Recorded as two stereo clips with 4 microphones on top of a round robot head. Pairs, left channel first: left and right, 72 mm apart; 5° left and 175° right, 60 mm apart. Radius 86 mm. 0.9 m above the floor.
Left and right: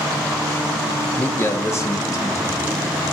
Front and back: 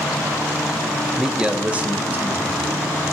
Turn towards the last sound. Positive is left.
turn(degrees=130)